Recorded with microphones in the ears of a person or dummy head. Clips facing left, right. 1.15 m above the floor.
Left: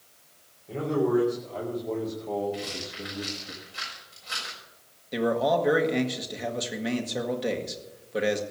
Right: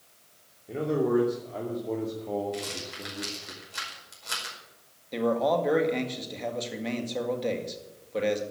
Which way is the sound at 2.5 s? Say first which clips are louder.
Left 1 dB; 70° right (ahead or behind).